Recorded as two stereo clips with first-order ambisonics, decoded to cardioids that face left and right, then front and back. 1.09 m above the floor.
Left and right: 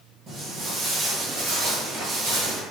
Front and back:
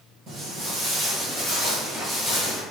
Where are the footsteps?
140° right, 1.4 m; by 2.6 s 75° right, 1.6 m.